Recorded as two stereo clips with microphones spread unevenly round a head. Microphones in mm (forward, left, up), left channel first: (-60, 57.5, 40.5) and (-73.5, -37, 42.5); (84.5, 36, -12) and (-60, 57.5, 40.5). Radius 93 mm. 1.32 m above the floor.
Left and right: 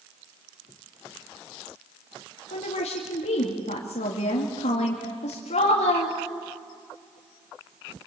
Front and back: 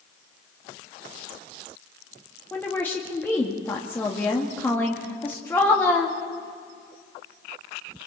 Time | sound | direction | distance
2.5 | a woman speaking | 70° left | 2 m